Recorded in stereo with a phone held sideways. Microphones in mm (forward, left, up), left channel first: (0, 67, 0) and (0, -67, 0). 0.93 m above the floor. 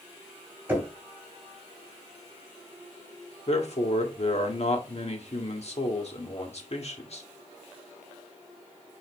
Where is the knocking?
15° right (ahead or behind), 3.5 m.